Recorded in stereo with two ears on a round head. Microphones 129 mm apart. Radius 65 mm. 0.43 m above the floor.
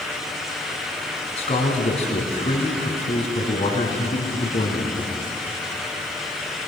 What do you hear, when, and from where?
1.4 s a man speaking: 40° left (ahead or behind), 3.5 m